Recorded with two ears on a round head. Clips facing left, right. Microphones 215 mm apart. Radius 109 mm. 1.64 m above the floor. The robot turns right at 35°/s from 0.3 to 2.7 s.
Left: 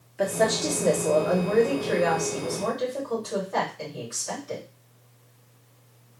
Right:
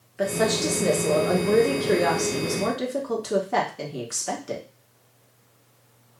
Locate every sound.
0.2 s a woman speaking: 175° right, 1.3 m; by 4.7 s 90° right, 1.3 m